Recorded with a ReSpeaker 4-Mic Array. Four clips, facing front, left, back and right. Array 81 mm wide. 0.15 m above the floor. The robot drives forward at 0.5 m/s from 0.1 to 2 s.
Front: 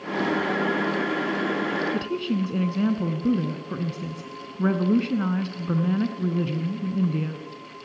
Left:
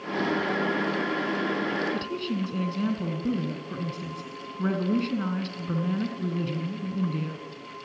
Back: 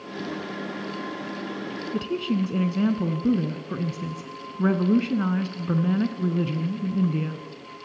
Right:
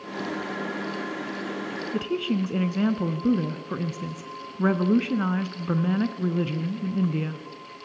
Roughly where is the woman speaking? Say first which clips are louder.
Right 4 dB, even; right.